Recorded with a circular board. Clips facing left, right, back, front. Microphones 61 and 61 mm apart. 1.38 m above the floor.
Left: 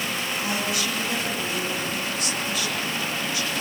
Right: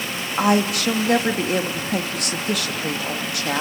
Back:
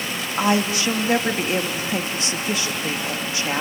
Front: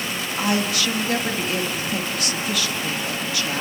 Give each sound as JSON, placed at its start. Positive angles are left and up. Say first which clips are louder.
{"t": 0.4, "sound": "a woman speaking", "louder": "right 11 dB, back 3 dB", "azimuth_deg": -115, "distance_m": 2.5}